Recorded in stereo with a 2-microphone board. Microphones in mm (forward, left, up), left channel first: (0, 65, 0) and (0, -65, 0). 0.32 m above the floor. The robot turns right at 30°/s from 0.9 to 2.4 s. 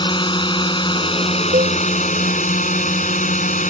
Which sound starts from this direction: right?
A cowbell, at 1.5 s.